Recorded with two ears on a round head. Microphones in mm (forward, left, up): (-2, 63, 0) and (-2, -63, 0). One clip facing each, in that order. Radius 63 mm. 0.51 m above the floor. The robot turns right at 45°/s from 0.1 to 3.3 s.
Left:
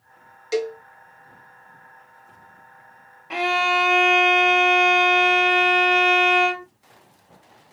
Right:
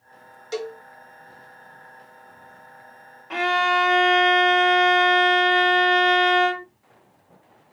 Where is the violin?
10° left (ahead or behind), 0.7 m.